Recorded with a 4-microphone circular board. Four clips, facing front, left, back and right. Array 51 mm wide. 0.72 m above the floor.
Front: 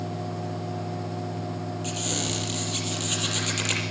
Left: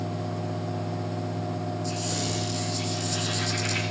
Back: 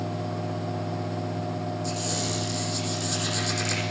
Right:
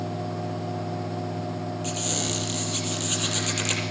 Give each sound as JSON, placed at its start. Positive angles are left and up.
{"t": 1.8, "sound": "a squeak", "azimuth_deg": -35, "distance_m": 6.5}